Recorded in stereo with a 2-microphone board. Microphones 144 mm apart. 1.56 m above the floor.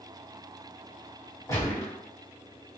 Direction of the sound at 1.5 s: 20° left (ahead or behind).